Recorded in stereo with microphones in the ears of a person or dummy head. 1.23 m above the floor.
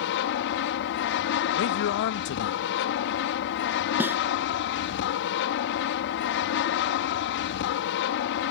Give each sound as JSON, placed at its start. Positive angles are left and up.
{"t": 0.0, "sound": "an aircraft", "side_deg": 60}
{"t": 1.6, "sound": "a man speaking", "side_deg": 55}
{"t": 4.0, "sound": "a snare drum", "side_deg": -10}